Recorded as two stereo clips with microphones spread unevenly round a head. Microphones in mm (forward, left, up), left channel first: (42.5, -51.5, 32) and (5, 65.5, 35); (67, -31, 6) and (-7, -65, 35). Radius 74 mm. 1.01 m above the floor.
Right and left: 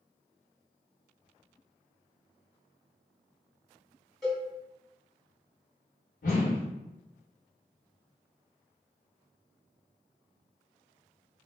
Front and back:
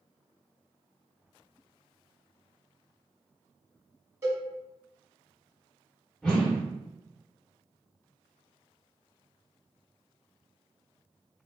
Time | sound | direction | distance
4.2 | a cowbell | 160° right | 1.2 m
6.2 | a whoosh | 65° right | 1.3 m